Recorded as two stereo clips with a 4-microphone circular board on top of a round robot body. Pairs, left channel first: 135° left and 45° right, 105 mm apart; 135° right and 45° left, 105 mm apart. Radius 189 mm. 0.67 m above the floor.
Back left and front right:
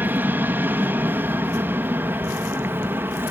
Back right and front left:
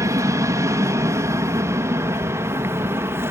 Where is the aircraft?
15° left; by 3.3 s 5° left.